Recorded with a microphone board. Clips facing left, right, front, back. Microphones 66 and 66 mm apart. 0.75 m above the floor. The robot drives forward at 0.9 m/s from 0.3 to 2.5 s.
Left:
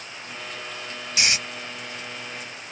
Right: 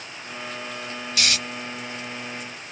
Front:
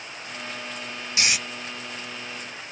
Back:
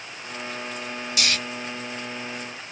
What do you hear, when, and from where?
1.2 s snoring: 40° left, 0.6 m; by 1.4 s 65° left, 0.6 m